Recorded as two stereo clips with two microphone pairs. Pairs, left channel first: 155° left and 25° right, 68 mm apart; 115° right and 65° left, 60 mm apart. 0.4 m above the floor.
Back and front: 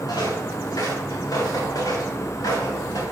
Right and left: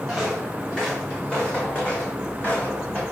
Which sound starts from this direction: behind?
Footsteps, at 0.1 s.